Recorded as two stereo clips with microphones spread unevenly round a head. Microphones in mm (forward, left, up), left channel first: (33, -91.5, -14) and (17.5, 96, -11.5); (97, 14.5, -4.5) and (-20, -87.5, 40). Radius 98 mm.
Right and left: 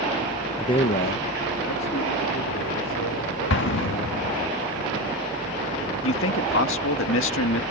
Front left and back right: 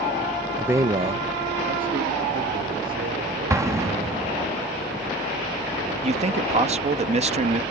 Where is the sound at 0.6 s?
25° right; by 4.5 s 115° right.